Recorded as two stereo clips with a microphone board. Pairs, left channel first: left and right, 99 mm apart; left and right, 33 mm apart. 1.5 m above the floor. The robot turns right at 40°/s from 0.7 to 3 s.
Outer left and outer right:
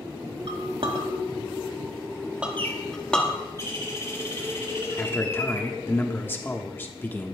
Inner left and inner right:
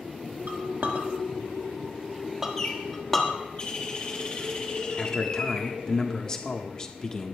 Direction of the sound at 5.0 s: 25° left (ahead or behind).